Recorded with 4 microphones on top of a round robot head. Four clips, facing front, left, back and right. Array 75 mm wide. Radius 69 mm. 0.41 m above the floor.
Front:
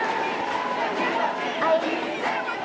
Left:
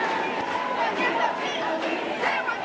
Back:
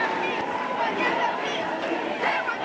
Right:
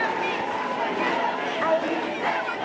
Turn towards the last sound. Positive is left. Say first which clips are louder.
# right 6 dB, front 5 dB
turn(degrees=-35)